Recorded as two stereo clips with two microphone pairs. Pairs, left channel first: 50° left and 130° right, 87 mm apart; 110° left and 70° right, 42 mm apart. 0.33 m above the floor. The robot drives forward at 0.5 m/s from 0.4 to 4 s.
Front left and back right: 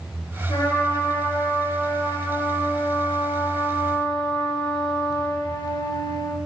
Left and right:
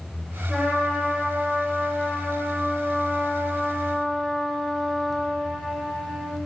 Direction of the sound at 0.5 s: 15° left.